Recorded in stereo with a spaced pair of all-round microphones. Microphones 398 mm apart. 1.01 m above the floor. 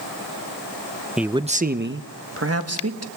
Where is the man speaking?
Centre (ahead or behind), 0.5 m; by 3.1 s 40° right (ahead or behind), 1.7 m.